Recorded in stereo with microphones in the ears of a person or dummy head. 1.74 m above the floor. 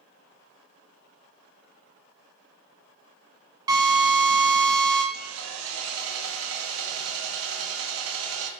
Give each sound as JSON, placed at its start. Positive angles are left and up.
{"t": 3.7, "sound": "a drill", "side_deg": -25, "distance_m": 0.7}
{"t": 5.1, "sound": "sawing", "side_deg": -75, "distance_m": 0.8}